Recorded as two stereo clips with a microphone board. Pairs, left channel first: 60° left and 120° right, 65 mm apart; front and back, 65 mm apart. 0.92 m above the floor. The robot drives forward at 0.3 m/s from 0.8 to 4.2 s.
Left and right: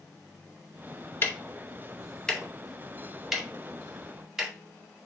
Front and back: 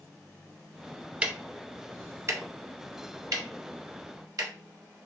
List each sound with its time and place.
1.2 s ticking: 110° left, 0.5 m; by 4.5 s 160° left, 1.2 m